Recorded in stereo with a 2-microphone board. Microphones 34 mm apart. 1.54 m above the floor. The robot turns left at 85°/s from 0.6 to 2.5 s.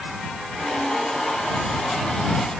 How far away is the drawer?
I don't hear a drawer.